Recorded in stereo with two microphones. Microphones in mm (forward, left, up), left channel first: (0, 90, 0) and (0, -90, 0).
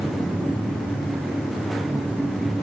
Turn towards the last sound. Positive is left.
No sound to turn to.